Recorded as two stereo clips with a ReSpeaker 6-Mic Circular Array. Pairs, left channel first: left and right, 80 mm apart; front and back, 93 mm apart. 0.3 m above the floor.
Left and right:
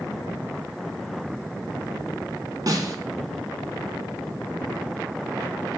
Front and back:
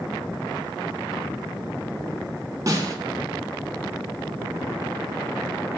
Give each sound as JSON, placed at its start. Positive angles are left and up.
{"t": 2.7, "sound": "a snare drum", "azimuth_deg": -130, "distance_m": 0.7}